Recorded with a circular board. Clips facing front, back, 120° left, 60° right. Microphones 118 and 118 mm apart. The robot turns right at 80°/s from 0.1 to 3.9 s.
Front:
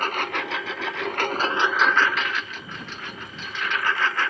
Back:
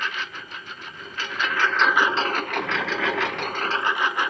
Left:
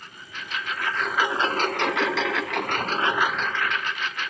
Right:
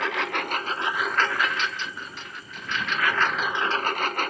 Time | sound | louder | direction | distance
0.0 | a lawn mower | front 6 dB, right 15 dB | 50° right | ?